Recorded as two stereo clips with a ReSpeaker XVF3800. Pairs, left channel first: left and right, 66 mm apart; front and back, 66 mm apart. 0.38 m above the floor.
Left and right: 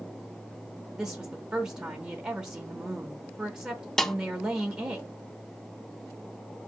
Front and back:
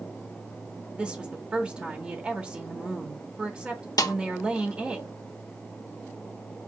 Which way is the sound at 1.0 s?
150° right.